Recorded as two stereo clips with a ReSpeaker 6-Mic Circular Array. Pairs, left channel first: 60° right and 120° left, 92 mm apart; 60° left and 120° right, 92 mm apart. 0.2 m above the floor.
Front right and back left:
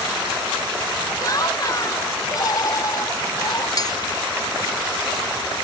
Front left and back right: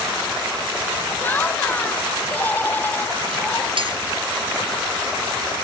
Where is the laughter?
10° right.